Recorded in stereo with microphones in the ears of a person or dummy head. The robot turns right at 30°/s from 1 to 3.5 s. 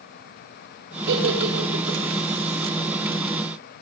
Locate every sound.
1.1 s a giggle: 70° right (ahead or behind), 4.5 m; by 2.0 s 85° right, 4.5 m